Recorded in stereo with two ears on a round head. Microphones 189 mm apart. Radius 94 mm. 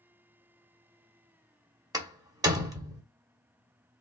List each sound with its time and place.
1.9 s a door slam: 20° right (ahead or behind), 1.2 m